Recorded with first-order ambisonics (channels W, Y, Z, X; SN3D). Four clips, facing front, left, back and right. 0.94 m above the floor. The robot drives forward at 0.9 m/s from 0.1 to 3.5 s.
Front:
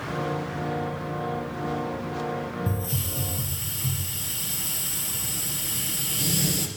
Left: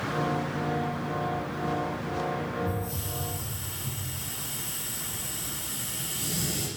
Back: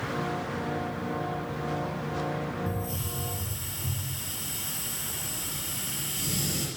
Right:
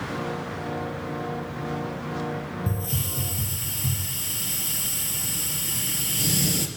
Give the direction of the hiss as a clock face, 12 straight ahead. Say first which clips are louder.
Right 2 dB, front 3 dB; 2 o'clock.